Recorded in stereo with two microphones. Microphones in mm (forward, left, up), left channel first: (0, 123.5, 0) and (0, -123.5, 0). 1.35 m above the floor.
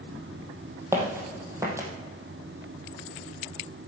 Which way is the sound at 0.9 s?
10° right (ahead or behind).